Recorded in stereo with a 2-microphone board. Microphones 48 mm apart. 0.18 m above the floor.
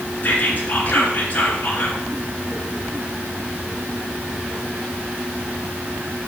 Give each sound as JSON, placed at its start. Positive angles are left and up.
{"t": 0.2, "sound": "whispering", "side_deg": 35, "distance_m": 2.5}